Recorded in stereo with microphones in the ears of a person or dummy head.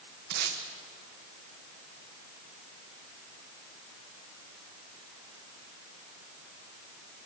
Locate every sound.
0.3 s tape being pulled: 55° right (ahead or behind), 1.3 m